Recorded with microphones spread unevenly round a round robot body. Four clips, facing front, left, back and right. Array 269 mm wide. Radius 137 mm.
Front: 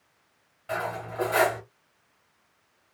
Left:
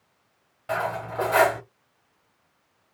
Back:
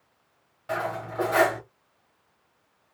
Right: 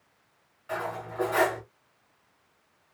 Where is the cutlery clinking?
100° left, 1.2 m.